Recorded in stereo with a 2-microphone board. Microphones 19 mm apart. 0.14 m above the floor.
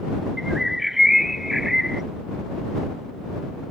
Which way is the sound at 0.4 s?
15° right (ahead or behind).